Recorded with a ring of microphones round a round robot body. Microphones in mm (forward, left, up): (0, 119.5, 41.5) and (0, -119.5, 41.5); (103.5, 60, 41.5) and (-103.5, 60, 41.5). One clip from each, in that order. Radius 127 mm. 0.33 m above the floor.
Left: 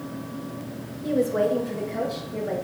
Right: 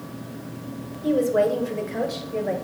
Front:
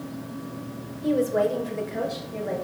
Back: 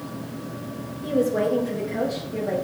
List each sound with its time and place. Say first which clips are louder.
1.0 s a woman speaking: right 2 dB, even; 25° right, 1.2 m; by 2.5 s 75° right, 1.6 m